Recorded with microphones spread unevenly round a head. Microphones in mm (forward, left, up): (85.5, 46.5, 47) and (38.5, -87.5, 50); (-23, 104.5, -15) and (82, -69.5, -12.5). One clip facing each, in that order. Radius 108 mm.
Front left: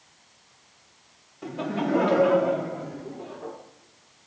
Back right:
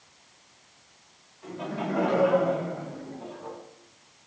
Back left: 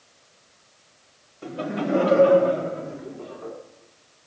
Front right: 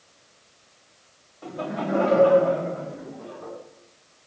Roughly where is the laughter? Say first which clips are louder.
Front left 5 dB, back left 2 dB; ahead left.